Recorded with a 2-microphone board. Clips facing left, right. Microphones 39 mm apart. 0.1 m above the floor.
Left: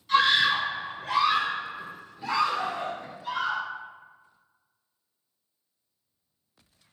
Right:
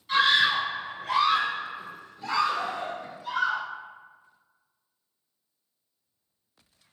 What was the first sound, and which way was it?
A scream, 10° right (ahead or behind).